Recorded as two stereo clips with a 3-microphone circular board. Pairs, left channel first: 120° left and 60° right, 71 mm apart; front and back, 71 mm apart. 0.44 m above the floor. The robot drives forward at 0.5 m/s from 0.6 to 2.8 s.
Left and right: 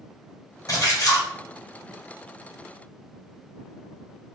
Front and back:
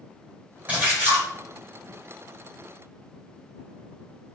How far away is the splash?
About 1.8 m.